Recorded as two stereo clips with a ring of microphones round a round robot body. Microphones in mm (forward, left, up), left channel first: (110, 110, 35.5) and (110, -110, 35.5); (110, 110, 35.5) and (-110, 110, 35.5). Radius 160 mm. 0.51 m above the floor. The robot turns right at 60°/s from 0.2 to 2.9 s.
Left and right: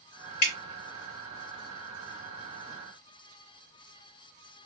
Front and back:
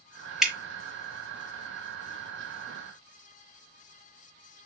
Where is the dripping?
90° left, 0.9 m; by 0.5 s 100° left, 0.9 m.